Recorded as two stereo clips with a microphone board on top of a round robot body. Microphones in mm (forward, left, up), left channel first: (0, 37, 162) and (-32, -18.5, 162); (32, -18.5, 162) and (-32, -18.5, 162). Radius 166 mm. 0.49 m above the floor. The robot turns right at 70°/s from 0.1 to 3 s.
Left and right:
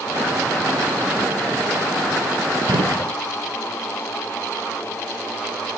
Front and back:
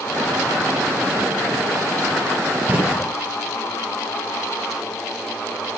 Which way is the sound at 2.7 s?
120° right.